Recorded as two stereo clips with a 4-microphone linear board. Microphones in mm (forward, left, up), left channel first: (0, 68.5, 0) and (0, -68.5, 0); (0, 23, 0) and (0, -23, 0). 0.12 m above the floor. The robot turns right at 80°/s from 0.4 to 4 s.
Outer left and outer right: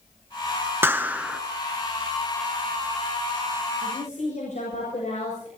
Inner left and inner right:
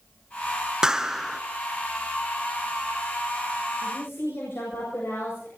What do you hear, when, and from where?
0.8 s a clap: 15° right (ahead or behind), 1.0 m; by 1.4 s 5° right (ahead or behind), 1.0 m
3.8 s a woman speaking: 50° left (ahead or behind), 7.5 m; by 5.5 s 65° left (ahead or behind), 7.5 m